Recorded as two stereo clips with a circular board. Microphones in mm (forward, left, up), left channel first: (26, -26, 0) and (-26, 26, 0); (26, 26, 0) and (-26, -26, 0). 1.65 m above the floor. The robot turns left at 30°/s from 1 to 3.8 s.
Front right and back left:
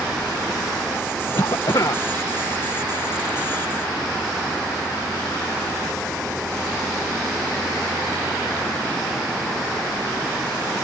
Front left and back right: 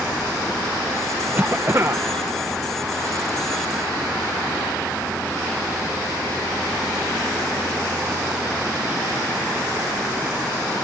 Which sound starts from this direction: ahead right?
A cough, at 1.4 s.